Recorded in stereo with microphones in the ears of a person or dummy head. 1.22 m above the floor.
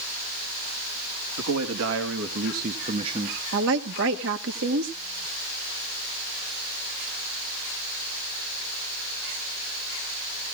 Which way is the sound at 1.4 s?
80° right.